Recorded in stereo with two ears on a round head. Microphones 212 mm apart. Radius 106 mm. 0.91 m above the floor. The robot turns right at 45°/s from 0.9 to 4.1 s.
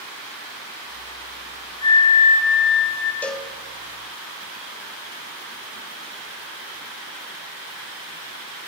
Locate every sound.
1.8 s a flute: 25° left, 2.5 m; by 3.1 s 80° left, 2.5 m
3.2 s a cowbell: 5° left (ahead or behind), 0.8 m; by 3.5 s 5° right (ahead or behind), 0.8 m